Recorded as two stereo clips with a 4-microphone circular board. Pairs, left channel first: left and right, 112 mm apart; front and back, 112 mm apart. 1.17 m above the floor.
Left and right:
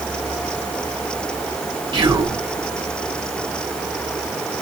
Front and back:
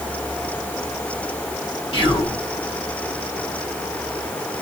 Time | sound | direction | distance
1.9 | whispering | 40° right | 0.8 m